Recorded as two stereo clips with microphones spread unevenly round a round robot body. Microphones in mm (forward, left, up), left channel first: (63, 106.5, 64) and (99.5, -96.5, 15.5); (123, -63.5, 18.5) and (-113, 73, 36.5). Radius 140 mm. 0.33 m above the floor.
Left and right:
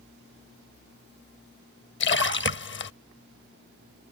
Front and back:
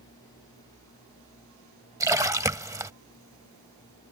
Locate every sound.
2.0 s a splash: 70° left